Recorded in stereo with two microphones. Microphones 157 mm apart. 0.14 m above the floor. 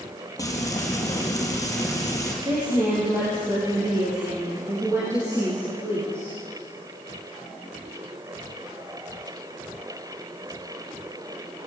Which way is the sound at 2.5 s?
15° right (ahead or behind).